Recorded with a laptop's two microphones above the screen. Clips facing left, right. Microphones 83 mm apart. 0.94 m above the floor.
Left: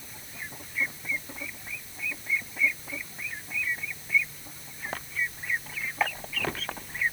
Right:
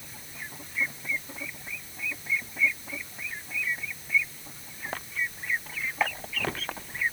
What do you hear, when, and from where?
Only background noise.